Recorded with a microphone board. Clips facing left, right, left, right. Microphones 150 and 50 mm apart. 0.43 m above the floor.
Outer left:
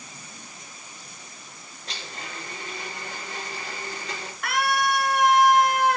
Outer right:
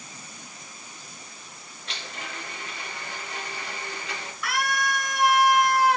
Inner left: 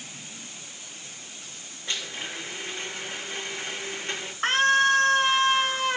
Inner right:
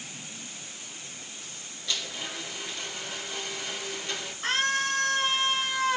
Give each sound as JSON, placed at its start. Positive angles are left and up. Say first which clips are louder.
{"t": 1.9, "sound": "a blender", "louder": "even, inner left 1 dB", "side_deg": 35, "distance_m": 3.5}
{"t": 4.4, "sound": "a scream", "louder": "outer left 4 dB, inner left 7 dB", "side_deg": 50, "distance_m": 6.5}